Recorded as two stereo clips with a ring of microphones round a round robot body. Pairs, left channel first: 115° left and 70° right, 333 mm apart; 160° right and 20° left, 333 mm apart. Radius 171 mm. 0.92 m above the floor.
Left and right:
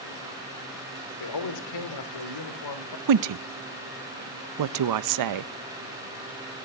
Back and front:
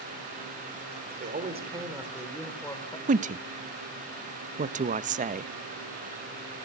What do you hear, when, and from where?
1.2 s a man speaking: 85° left, 2.5 m; by 3.0 s 130° left, 3 m
3.1 s a woman speaking: 45° right, 0.6 m